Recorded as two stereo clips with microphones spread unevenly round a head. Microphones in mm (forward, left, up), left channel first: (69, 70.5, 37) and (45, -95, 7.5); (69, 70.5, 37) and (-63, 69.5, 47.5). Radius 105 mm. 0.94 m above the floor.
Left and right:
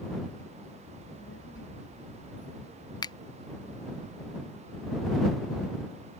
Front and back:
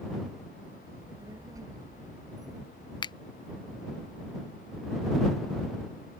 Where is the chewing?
No chewing in this recording.